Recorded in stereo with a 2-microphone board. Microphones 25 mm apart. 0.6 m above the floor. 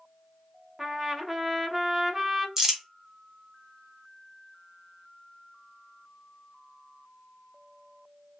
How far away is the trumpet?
About 0.5 m.